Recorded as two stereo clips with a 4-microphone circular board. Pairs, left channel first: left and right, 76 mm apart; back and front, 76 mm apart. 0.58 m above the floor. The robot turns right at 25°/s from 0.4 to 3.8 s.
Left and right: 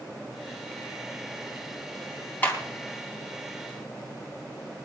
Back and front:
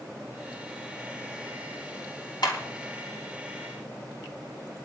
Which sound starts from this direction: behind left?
A clap, at 2.4 s.